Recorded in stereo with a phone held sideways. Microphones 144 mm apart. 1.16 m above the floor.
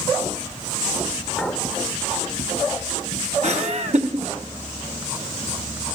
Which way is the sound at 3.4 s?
55° right (ahead or behind).